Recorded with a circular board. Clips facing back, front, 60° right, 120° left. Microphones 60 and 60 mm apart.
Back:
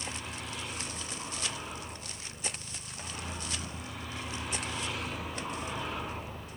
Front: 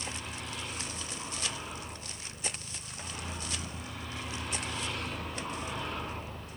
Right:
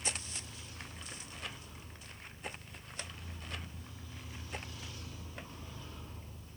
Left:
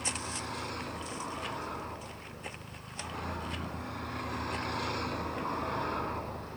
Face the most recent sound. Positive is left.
turn(degrees=95)